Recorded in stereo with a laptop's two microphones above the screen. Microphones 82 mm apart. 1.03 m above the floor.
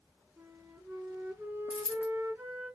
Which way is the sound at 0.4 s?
25° right (ahead or behind).